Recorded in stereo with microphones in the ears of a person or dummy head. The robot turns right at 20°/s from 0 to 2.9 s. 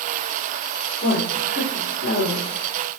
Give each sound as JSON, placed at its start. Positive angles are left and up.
{"t": 1.0, "sound": "a woman speaking", "side_deg": 30, "distance_m": 3.5}